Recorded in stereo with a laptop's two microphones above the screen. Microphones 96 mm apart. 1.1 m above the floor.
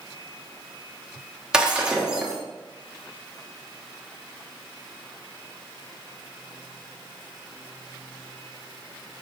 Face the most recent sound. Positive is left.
turn(degrees=-10)  # may be behind; listen again after turning